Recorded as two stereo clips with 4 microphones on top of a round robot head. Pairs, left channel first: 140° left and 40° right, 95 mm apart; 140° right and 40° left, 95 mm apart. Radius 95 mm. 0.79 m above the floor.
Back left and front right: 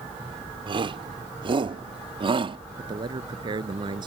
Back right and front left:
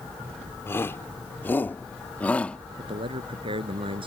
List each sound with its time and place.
0.7 s a shout: 75° right; by 2.6 s 60° right
2.8 s a man speaking: 5° left